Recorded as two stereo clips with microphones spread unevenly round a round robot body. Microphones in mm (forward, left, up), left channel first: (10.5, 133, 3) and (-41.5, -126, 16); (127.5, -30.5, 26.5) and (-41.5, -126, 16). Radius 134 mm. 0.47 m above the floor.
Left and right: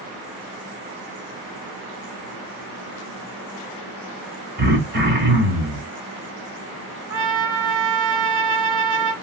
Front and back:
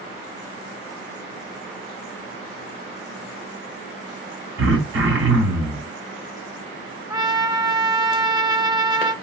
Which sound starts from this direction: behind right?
Throat clearing, at 4.6 s.